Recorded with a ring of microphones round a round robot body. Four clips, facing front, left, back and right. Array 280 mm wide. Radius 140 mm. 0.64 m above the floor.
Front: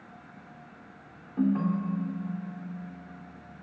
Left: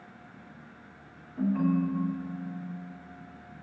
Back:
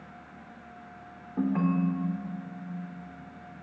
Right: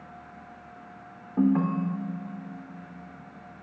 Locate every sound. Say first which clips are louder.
1.4 s a ringtone: right 3 dB, even; 100° right, 1.6 m